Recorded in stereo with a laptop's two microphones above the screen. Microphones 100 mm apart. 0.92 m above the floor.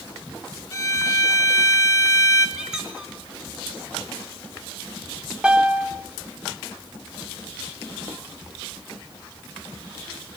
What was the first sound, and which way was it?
A violin, 35° left (ahead or behind).